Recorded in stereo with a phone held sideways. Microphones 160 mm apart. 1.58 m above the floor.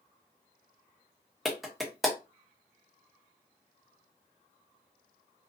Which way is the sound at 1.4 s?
Centre (ahead or behind).